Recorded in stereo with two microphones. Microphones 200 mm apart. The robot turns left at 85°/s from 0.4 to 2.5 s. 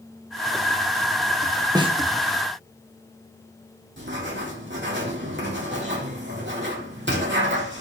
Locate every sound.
1.8 s a snare drum: 20° right (ahead or behind), 1.3 m; by 2.0 s 35° right (ahead or behind), 1.3 m
4.0 s writing: 65° right (ahead or behind), 4 m